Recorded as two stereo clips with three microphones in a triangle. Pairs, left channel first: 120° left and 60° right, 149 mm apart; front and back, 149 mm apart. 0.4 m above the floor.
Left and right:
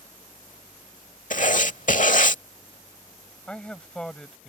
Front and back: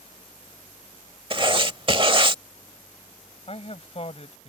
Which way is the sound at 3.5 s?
35° left.